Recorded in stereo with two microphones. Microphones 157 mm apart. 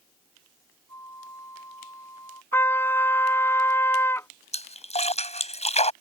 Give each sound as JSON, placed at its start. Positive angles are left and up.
{"t": 0.9, "sound": "a flute", "side_deg": 20}
{"t": 2.5, "sound": "a trumpet", "side_deg": 15}
{"t": 4.5, "sound": "a splash", "side_deg": 40}